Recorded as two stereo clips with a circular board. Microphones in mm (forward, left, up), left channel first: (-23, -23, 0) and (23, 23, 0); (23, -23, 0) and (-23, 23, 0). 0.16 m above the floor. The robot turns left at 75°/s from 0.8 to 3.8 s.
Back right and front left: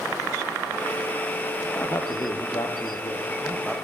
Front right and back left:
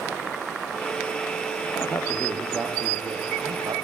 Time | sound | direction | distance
1.8 | a man speaking | 80° right | 4 m